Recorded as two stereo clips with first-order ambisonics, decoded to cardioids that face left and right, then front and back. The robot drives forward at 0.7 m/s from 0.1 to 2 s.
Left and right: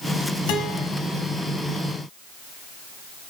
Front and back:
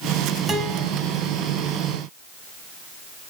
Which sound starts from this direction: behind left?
A guitar, at 0.5 s.